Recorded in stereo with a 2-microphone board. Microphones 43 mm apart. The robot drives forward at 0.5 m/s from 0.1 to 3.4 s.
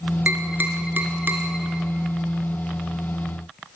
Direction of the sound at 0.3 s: 45° right (ahead or behind).